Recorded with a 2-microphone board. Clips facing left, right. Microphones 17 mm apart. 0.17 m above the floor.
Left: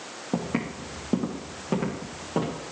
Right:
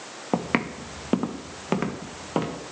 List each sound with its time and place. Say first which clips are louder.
0.3 s footsteps: right 4 dB; 85° right, 1.3 m; by 2.6 s 40° right (ahead or behind), 3 m